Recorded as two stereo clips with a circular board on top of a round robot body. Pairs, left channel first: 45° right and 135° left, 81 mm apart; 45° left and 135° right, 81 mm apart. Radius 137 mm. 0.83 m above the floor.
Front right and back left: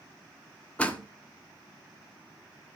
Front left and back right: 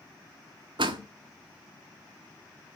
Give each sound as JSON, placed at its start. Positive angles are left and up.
{"t": 0.8, "sound": "a door slam", "azimuth_deg": -120, "distance_m": 1.8}